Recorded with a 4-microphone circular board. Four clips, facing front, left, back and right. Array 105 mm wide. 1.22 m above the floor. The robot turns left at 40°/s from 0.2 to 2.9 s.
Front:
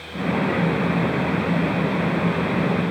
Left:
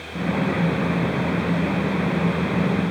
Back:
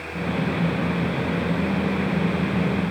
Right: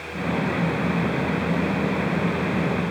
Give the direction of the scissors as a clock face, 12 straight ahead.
No scissors in this recording.